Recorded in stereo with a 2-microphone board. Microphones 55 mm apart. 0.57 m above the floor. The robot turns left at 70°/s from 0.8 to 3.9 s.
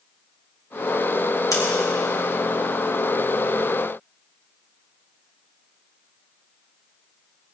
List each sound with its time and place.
1.5 s scissors: 80° left, 4 m